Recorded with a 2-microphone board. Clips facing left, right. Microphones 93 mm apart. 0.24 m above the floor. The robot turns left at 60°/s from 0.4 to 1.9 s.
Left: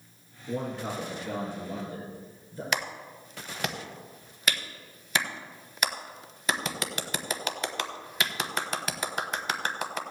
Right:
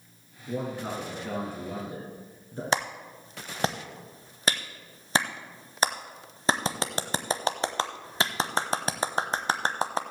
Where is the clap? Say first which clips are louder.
Right 4 dB; 35° right (ahead or behind), 0.9 m.